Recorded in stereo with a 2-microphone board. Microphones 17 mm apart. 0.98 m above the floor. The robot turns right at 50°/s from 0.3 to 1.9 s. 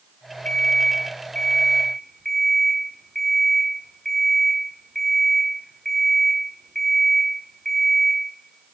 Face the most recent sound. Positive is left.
turn(degrees=165)